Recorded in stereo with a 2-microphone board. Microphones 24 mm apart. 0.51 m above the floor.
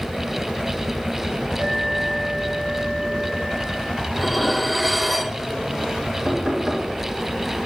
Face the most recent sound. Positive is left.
turn(degrees=-5)  # may be behind; listen again after turning